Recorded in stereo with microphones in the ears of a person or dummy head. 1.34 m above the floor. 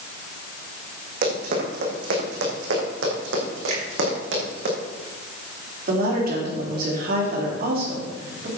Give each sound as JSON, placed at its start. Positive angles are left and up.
{"t": 1.2, "sound": "running footsteps", "side_deg": -55, "distance_m": 3.5}
{"t": 3.7, "sound": "a finger snap", "side_deg": -85, "distance_m": 4.5}
{"t": 5.9, "sound": "a woman speaking", "side_deg": -50, "distance_m": 3.0}